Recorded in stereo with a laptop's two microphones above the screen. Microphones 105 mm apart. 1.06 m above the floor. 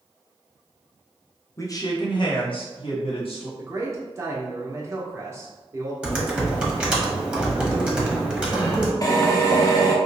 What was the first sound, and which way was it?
A man speaking, 30° left (ahead or behind).